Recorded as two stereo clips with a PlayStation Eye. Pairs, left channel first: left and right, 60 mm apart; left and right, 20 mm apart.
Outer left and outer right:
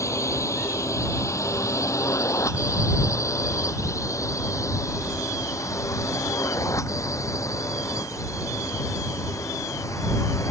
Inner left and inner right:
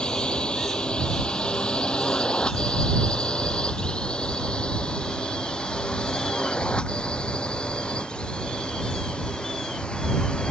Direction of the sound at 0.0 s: 55° left (ahead or behind).